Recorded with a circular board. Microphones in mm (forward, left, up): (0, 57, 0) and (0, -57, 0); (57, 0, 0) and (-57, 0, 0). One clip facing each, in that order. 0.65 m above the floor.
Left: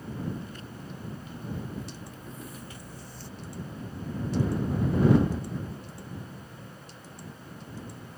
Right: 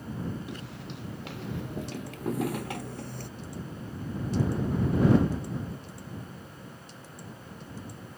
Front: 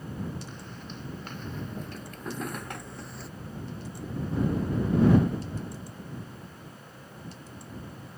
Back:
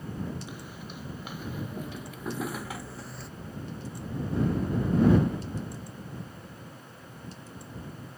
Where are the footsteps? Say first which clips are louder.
Right 2 dB, even; 100° right; by 3.3 s 90° right.